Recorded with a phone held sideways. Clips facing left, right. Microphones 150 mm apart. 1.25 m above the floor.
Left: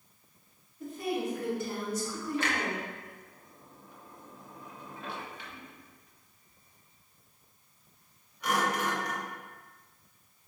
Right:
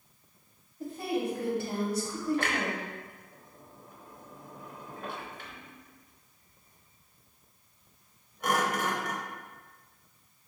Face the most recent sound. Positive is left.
turn(degrees=-45)  # may be behind; listen again after turning